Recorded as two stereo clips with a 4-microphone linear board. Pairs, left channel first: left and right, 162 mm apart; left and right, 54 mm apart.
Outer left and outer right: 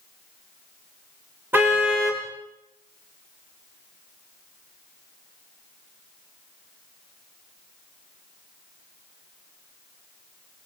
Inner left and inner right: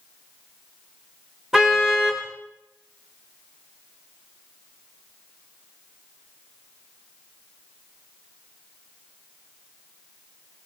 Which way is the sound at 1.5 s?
10° right (ahead or behind).